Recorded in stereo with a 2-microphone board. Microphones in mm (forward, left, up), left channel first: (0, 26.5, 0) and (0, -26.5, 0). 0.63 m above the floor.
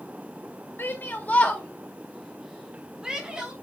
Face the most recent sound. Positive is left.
turn(degrees=-15)  # may be behind; listen again after turning